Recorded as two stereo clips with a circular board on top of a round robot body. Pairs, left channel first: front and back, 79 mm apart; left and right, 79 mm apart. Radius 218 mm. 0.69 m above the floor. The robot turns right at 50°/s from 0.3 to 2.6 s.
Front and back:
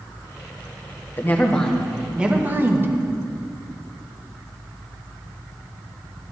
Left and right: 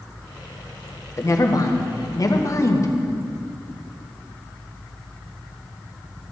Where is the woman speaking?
55° left, 1.5 m; by 2.9 s 125° left, 1.5 m.